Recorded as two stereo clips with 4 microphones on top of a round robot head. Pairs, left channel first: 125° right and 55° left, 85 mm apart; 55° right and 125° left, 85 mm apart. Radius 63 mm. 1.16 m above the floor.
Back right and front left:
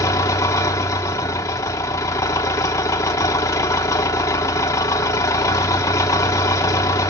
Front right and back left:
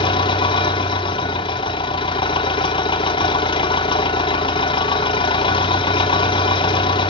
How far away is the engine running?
About 1.0 m.